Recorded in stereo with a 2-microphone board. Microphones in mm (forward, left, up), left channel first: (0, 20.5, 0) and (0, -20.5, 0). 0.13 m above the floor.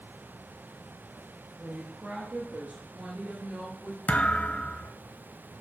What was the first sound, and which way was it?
A woman speaking, 40° right (ahead or behind).